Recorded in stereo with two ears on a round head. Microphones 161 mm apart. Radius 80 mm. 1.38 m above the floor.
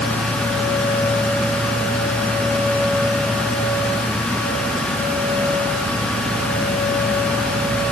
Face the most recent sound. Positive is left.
No sound to turn to.